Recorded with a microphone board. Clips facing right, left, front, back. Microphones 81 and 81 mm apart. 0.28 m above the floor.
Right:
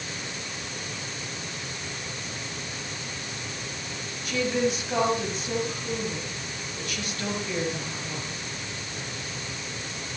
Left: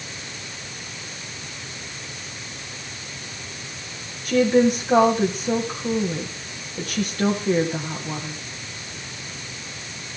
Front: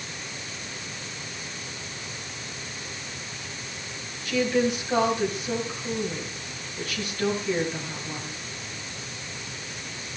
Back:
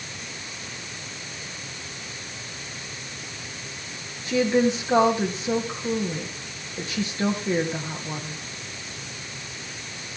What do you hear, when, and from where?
4.2 s a woman speaking: 125° left, 2.0 m